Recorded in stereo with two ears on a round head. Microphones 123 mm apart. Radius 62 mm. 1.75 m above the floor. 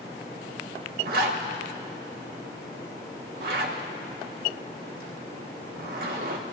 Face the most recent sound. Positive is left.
turn(degrees=-80)